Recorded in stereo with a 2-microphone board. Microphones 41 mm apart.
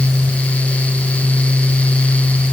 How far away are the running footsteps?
I don't hear running footsteps.